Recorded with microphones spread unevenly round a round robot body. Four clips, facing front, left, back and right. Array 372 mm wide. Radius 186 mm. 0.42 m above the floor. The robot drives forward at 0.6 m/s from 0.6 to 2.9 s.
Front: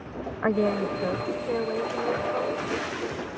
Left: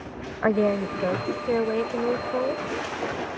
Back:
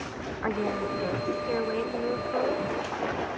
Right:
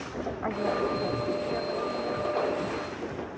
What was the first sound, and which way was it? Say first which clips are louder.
A woman speaking: left 7 dB, front 5 dB; 55° left.